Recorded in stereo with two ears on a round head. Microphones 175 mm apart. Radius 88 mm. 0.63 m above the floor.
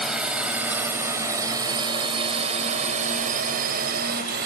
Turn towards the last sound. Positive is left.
turn(degrees=-60)  # may be behind; listen again after turning